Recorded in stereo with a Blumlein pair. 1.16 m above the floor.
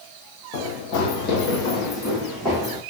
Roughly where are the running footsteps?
Ahead left.